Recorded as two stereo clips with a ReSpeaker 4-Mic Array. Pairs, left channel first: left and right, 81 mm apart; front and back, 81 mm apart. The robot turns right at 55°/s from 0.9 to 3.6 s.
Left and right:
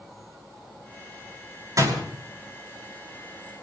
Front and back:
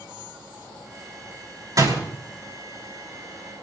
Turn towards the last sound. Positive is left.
turn(degrees=-35)